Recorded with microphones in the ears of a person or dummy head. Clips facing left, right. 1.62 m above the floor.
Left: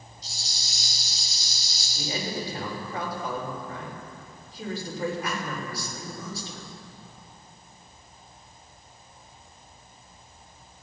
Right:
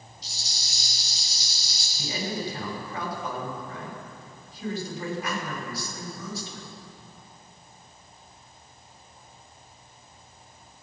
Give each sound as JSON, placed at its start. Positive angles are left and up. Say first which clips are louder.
{"t": 0.2, "sound": "a rattle", "louder": "left 1 dB", "side_deg": -60, "distance_m": 5.5}
{"t": 1.9, "sound": "a man speaking", "louder": "even", "side_deg": 35, "distance_m": 6.5}